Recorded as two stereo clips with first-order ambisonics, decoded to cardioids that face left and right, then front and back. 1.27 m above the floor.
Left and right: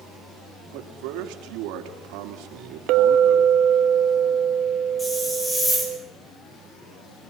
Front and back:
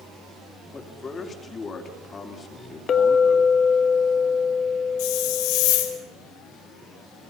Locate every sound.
0.7 s a man speaking: 70° right, 3 m
2.9 s a clink: 60° right, 1.2 m
5.0 s a hiss: 5° left, 4 m